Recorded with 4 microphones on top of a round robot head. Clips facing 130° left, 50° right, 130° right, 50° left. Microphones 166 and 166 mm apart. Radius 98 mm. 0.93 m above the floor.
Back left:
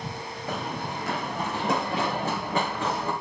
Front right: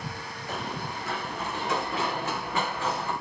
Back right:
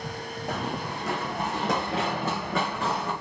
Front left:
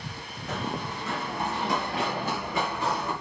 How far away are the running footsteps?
About 1.8 m.